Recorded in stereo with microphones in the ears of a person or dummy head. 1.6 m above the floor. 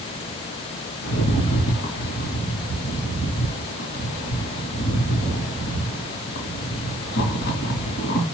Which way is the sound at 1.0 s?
60° left (ahead or behind).